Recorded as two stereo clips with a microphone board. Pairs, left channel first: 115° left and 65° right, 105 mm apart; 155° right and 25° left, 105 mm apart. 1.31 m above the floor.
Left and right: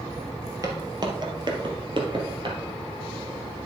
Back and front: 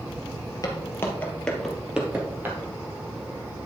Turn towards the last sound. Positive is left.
turn(degrees=-40)